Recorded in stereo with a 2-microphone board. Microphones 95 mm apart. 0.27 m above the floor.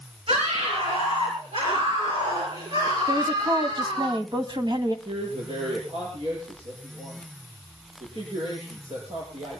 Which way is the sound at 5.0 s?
80° right.